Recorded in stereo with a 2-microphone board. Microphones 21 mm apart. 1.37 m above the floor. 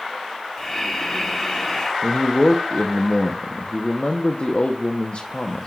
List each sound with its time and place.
0.6 s breathing: 15° left (ahead or behind), 2.5 m
2.0 s a man speaking: 70° left (ahead or behind), 0.8 m